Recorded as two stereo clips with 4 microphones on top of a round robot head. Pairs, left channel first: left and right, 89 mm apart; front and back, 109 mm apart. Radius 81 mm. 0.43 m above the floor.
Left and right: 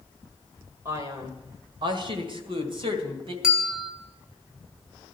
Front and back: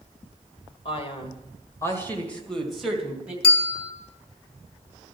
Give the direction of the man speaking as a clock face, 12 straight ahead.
1 o'clock.